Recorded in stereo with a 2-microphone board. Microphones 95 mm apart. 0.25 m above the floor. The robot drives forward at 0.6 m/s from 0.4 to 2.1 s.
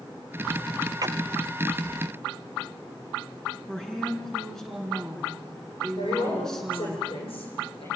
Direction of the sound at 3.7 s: 5° left (ahead or behind).